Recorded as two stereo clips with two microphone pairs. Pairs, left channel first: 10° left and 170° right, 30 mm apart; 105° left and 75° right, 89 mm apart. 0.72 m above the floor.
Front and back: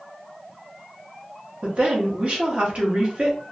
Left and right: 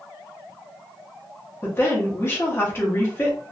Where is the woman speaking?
160° left, 1.0 m.